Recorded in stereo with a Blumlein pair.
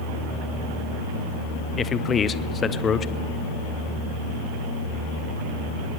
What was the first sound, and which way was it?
A man speaking, 20° left.